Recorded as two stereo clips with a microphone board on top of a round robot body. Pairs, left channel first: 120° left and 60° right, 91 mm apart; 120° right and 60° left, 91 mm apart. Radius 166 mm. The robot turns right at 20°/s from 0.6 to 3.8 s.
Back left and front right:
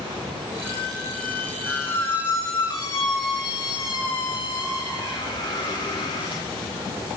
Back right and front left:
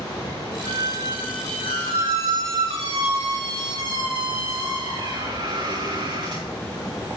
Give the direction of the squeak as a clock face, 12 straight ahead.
11 o'clock.